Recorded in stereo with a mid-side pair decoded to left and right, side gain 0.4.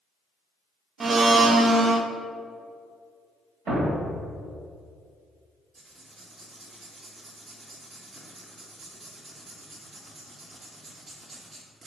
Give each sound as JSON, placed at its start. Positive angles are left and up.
{"t": 1.0, "sound": "a blender", "azimuth_deg": -40, "distance_m": 0.7}
{"t": 3.7, "sound": "a thud", "azimuth_deg": -50, "distance_m": 2.0}
{"t": 5.8, "sound": "writing", "azimuth_deg": -50, "distance_m": 2.0}